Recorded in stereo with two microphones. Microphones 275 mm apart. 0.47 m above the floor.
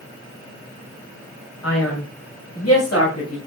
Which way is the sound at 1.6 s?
65° left (ahead or behind).